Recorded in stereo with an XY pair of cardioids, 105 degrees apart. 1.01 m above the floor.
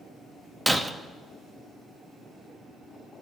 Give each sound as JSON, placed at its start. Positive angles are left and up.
{"t": 0.7, "sound": "breaking glass", "azimuth_deg": -15, "distance_m": 0.8}